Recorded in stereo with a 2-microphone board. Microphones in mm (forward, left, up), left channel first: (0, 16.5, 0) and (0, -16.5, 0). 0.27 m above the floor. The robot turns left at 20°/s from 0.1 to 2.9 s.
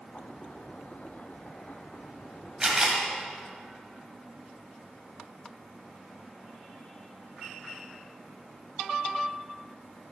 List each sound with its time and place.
2.6 s a camera shutter: 15° right (ahead or behind), 1.8 m; by 3.0 s 20° right (ahead or behind), 1.8 m